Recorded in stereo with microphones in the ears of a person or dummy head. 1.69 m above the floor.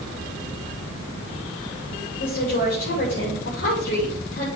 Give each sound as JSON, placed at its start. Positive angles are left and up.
{"t": 2.2, "sound": "a woman speaking", "side_deg": 70, "distance_m": 3.5}